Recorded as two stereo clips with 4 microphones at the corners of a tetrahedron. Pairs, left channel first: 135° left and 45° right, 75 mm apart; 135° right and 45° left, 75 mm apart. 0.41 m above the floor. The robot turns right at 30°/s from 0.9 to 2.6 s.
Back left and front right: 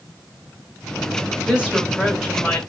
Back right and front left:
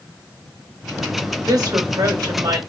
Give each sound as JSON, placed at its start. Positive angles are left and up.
{"t": 1.4, "sound": "a woman speaking", "azimuth_deg": 20, "distance_m": 1.8}